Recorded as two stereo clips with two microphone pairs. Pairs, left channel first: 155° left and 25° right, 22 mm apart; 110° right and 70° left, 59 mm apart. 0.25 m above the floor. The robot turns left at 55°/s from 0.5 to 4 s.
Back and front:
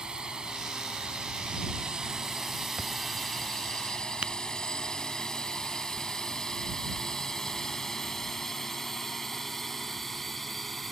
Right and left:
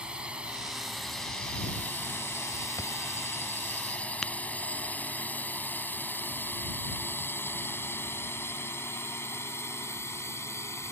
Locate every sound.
0.0 s a drone: 5° left; by 10.9 s 125° right
2.8 s a thud: 70° right; by 2.9 s 75° right
4.2 s tapping: 20° right